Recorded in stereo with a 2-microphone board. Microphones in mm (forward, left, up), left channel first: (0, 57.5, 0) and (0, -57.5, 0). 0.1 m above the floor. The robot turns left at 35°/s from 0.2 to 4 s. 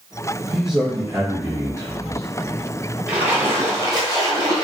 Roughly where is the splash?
Ahead.